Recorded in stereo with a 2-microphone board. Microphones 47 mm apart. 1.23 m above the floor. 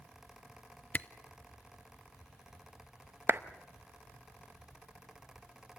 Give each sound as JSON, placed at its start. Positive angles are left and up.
{"t": 0.9, "sound": "a camera shutter", "side_deg": 35, "distance_m": 0.6}
{"t": 3.3, "sound": "a clap", "side_deg": -55, "distance_m": 0.7}